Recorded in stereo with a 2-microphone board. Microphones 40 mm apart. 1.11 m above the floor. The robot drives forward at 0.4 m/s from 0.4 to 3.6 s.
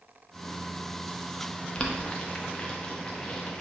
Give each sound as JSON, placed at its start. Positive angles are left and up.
{"t": 1.8, "sound": "boiling", "side_deg": 25, "distance_m": 0.6}